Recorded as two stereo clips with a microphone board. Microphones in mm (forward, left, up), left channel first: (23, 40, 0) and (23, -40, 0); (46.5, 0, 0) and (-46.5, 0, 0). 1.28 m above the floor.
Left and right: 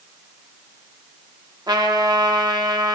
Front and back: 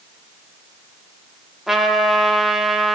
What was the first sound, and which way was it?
A trumpet, 90° right.